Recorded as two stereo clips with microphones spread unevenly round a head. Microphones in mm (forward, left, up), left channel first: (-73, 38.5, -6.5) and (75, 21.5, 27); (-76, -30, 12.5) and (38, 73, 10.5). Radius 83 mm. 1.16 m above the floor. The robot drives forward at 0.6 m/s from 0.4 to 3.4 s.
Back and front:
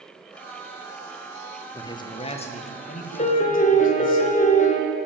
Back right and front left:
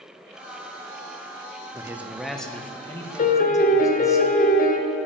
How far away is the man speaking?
About 0.8 m.